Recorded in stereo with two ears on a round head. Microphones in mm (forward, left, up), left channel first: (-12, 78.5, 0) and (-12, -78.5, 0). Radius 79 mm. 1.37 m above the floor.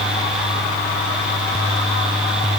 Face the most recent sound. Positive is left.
No sound to turn to.